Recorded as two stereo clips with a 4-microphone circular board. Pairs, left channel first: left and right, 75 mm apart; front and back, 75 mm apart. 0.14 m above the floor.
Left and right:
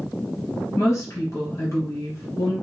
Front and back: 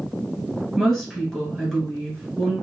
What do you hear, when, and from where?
0.8 s a woman speaking: 85° left, 1.7 m